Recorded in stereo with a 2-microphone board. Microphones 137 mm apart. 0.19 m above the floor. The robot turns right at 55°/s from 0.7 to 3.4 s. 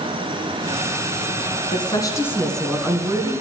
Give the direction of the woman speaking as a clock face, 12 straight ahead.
8 o'clock.